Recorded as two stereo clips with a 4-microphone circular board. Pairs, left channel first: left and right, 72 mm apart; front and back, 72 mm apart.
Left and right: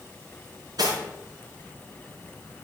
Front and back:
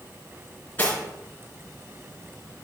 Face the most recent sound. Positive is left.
turn(degrees=-70)